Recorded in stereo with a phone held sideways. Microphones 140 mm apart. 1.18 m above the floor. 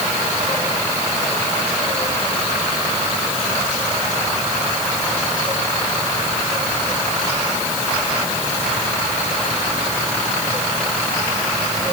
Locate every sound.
Only background noise.